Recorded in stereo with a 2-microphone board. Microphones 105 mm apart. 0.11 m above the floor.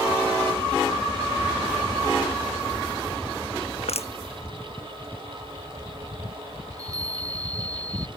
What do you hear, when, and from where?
3.8 s crushing: 80° left
6.7 s a chime: 35° right (ahead or behind)